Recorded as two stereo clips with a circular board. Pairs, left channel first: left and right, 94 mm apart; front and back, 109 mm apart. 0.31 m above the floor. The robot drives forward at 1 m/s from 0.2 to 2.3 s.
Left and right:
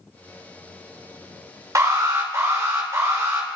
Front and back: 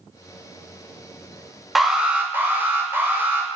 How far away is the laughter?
I don't hear laughter.